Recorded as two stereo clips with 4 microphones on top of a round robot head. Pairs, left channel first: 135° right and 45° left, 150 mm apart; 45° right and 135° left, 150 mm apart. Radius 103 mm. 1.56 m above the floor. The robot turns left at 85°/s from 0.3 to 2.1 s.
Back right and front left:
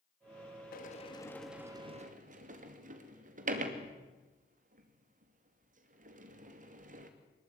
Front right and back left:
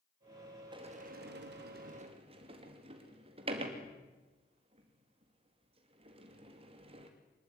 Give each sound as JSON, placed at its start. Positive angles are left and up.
{"t": 0.7, "sound": "a sliding door", "azimuth_deg": -165, "distance_m": 2.5}